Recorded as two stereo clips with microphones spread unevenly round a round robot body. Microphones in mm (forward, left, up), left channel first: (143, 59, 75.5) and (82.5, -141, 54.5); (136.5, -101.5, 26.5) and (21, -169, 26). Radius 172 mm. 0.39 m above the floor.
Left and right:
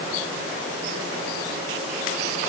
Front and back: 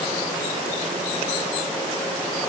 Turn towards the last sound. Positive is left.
No sound to turn to.